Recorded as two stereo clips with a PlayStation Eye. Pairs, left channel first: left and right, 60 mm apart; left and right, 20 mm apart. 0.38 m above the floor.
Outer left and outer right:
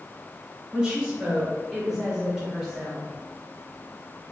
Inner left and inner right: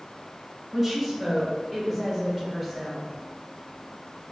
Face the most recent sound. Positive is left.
turn(degrees=0)  # may be behind; listen again after turning